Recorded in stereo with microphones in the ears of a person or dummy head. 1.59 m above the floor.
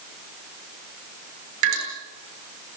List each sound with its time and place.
1.6 s dripping: 70° right (ahead or behind), 9.5 m